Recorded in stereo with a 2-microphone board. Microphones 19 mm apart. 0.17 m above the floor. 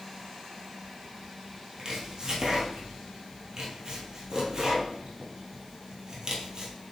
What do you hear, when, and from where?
1.8 s chopping: 40° right (ahead or behind), 1.4 m